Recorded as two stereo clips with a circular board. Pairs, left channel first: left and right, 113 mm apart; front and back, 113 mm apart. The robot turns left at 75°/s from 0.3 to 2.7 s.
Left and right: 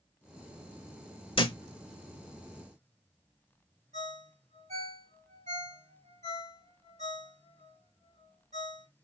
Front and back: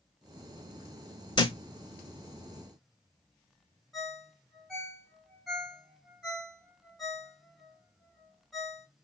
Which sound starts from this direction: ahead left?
A thud, at 1.4 s.